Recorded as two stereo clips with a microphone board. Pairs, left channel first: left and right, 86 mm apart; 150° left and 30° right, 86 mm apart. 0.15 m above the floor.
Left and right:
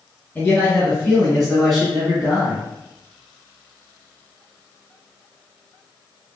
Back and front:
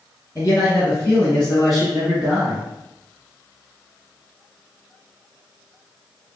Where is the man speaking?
155° left, 1.9 m; by 2.6 s 40° right, 1.6 m.